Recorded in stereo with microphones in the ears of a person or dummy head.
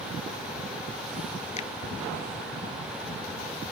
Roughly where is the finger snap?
Left.